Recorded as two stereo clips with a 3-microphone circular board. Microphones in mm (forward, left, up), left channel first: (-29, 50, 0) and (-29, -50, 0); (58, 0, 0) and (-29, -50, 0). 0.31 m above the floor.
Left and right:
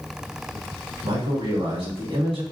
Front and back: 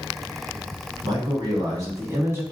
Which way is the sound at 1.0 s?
110° right.